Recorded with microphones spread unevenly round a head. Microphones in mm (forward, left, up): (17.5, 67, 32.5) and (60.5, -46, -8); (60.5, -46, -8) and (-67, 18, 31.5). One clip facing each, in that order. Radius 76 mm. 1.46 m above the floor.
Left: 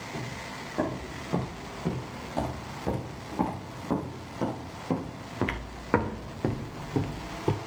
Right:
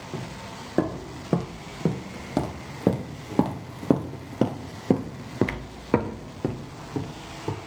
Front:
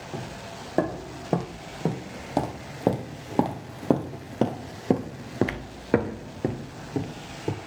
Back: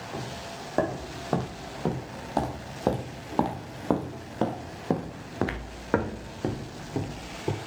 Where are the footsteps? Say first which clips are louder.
Right 3 dB, front 1 dB; 105° right, 5 m; by 7.6 s 70° left, 1.9 m.